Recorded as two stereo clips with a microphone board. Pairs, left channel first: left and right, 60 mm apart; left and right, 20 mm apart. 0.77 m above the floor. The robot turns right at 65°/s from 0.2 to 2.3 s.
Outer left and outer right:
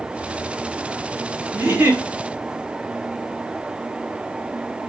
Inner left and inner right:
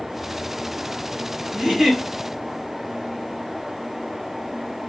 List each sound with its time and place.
1.5 s a giggle: 130° right, 1.0 m; by 2.0 s 100° right, 1.0 m